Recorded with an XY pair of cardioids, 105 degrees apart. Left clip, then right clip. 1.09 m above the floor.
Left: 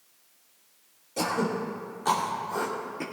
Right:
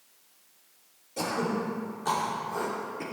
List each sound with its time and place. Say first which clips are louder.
1.2 s throat clearing: left 2 dB; 30° left, 2.5 m